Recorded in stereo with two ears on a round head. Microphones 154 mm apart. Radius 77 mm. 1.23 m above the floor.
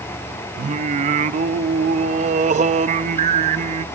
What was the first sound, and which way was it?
Singing, 40° right (ahead or behind).